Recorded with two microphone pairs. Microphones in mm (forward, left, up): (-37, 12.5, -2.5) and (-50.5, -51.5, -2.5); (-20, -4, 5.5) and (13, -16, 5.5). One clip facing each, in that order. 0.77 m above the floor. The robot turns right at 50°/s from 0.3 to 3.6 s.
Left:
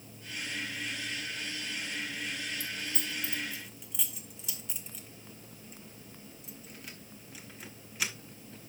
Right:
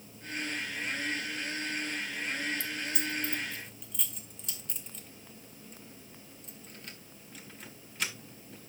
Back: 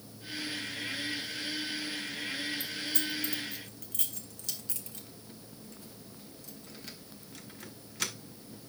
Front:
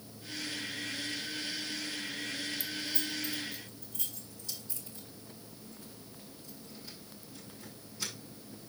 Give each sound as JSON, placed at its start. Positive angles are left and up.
{"t": 2.6, "sound": "keys jangling", "azimuth_deg": 115, "distance_m": 1.0}